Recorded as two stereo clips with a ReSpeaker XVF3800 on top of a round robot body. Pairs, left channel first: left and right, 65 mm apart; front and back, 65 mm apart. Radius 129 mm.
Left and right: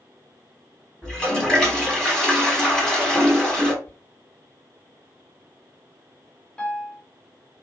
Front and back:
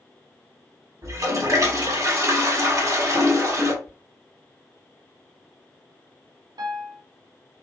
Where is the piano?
165° left, 0.7 m.